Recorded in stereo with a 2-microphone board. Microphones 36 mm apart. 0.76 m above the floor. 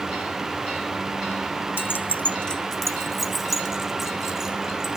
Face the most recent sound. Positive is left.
turn(degrees=-10)  # may be behind; listen again after turning